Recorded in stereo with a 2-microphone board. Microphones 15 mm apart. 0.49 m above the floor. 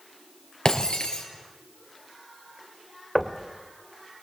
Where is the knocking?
5° left (ahead or behind), 1.6 m.